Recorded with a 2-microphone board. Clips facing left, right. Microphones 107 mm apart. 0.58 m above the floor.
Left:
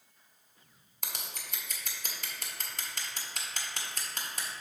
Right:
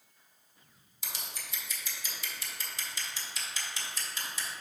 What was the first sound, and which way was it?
Scissors, 50° left (ahead or behind).